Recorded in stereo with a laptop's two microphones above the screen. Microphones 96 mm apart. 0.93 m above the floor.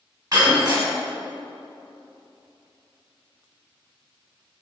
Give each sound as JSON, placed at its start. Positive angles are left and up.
{"t": 0.3, "sound": "breaking glass", "side_deg": -45, "distance_m": 2.5}